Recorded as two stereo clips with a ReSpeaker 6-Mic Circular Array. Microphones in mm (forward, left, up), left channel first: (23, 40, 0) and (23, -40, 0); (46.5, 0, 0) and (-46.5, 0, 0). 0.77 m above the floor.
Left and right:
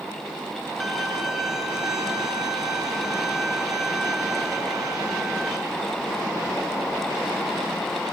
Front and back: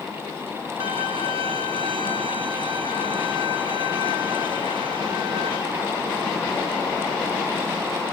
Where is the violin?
175° right, 3 m.